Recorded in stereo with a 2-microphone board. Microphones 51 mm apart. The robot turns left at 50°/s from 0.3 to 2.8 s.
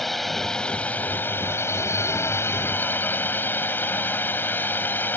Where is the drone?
175° left; by 5.2 s 50° left.